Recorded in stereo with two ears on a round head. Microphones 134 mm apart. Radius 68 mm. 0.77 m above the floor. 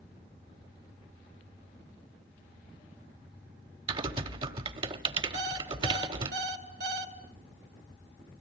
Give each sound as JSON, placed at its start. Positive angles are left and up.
{"t": 3.9, "sound": "typing on a keyboard", "side_deg": -35, "distance_m": 1.3}
{"t": 5.3, "sound": "an alarm clock", "side_deg": -75, "distance_m": 2.0}